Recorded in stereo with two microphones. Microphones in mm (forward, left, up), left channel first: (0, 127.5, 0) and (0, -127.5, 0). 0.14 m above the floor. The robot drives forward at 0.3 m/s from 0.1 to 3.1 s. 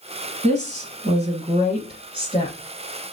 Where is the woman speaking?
25° right (ahead or behind), 1.2 m; by 2.6 s 20° right (ahead or behind), 1.6 m.